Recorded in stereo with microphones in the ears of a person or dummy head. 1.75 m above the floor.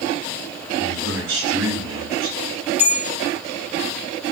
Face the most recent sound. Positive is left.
turn(degrees=-10)  # may be behind; listen again after turning